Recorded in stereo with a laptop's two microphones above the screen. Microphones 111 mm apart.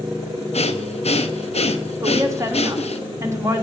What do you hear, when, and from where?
0.5 s breathing: 65° left (ahead or behind), 0.8 m
2.0 s a woman speaking: 25° right (ahead or behind), 1.5 m